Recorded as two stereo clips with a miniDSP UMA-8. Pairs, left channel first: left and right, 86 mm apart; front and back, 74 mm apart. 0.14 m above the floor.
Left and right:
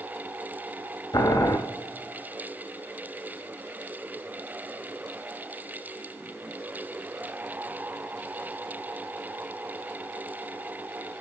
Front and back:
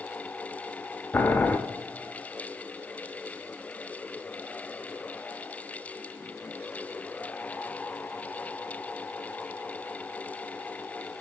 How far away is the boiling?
About 0.6 m.